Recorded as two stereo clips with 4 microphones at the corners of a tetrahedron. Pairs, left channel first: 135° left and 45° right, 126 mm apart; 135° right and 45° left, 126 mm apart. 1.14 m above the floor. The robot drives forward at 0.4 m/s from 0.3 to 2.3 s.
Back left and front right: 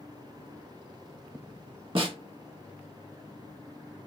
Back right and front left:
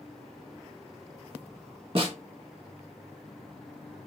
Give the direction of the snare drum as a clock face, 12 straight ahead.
12 o'clock.